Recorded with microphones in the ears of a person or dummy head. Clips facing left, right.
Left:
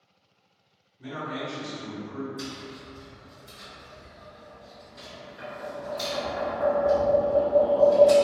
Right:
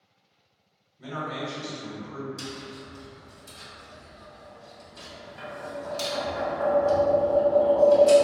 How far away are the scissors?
I don't hear scissors.